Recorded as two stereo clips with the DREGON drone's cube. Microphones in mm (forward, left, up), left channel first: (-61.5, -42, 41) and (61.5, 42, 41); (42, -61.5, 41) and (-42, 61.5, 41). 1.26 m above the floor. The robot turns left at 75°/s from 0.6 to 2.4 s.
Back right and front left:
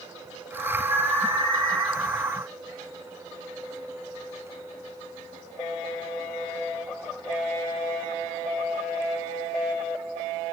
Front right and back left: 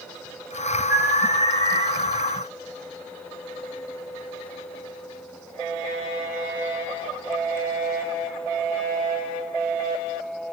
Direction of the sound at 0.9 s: 160° right.